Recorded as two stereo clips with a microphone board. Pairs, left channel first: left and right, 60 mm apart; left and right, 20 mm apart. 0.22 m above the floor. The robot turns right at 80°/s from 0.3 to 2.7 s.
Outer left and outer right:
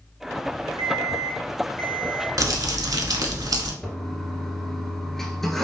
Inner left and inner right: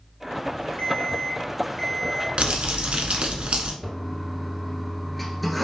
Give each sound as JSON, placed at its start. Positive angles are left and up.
{"t": 0.8, "sound": "an alarm clock", "azimuth_deg": 80, "distance_m": 2.0}
{"t": 2.4, "sound": "crumpling", "side_deg": -65, "distance_m": 0.8}
{"t": 3.8, "sound": "a toilet flushing", "side_deg": 5, "distance_m": 0.8}